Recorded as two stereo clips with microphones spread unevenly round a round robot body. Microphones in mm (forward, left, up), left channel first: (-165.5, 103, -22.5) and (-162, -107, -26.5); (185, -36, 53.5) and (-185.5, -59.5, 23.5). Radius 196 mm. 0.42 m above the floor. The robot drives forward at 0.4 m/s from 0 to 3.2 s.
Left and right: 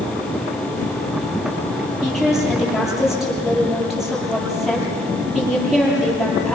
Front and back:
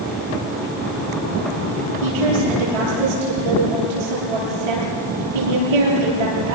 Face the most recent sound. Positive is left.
turn(degrees=-175)